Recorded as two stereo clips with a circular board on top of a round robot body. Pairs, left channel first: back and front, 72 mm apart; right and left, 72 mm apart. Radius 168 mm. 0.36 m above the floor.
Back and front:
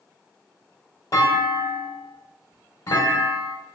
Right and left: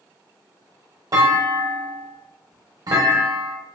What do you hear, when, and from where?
1.1 s a clunk: 130° left, 0.7 m